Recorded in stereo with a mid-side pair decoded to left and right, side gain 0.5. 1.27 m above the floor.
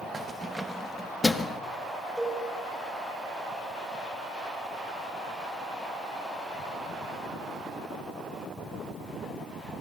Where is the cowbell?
5° right, 9.5 m.